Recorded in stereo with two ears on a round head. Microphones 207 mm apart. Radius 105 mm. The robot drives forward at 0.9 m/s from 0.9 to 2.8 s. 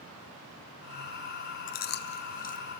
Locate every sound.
1.7 s chewing: 35° left (ahead or behind), 0.7 m; by 2.8 s 30° left (ahead or behind), 0.8 m